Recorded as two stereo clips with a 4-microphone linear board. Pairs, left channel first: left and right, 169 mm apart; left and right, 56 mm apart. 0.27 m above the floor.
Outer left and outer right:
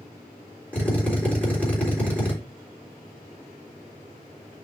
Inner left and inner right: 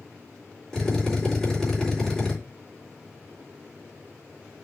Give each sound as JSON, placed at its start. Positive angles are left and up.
{"t": 0.7, "sound": "a drill", "side_deg": 10, "distance_m": 3.0}